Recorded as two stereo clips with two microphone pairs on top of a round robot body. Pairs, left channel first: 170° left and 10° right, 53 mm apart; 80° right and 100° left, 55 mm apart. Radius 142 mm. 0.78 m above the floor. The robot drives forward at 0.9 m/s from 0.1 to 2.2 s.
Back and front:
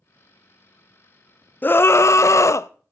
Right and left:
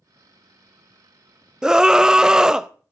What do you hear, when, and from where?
1.6 s a scream: 155° left, 0.5 m; by 2.7 s 170° left, 0.9 m